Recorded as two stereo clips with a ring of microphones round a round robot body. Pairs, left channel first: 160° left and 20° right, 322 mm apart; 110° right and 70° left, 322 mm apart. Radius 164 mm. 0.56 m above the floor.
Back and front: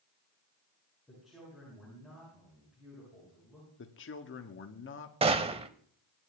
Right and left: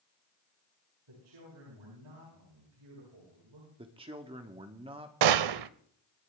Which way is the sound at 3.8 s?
135° left.